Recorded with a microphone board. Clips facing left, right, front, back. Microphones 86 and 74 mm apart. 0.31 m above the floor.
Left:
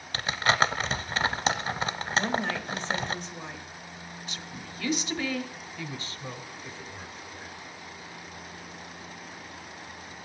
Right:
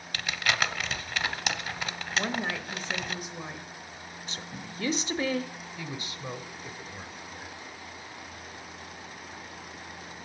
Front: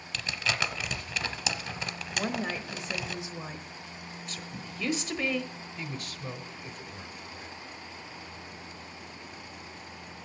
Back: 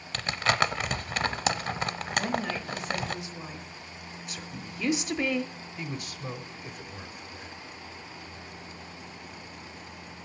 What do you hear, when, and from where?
0.1 s crumpling: 145° left, 0.5 m
2.1 s a woman speaking: 20° right, 0.9 m
4.3 s a woman speaking: 110° right, 1.1 m
5.8 s a man speaking: 120° right, 1.1 m